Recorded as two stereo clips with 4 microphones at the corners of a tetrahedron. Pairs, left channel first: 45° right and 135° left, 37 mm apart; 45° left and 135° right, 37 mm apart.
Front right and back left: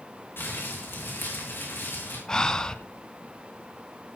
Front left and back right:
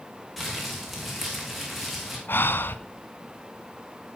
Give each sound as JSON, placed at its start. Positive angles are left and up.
{"t": 0.4, "sound": "crumpling", "azimuth_deg": -45, "distance_m": 7.0}
{"t": 2.3, "sound": "breathing", "azimuth_deg": 25, "distance_m": 1.3}